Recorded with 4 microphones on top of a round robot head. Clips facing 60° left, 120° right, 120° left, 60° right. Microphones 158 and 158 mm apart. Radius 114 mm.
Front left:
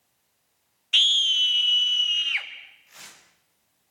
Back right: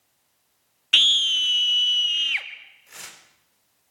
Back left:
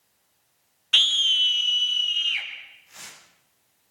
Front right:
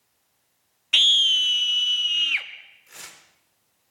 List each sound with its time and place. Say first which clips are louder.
0.9 s a scream: back right 2 dB, front right 1 dB; 130° right, 0.9 m; by 2.5 s 55° right, 2.0 m
2.9 s tearing paper: back right 5 dB, front right 2 dB; 90° right, 4.5 m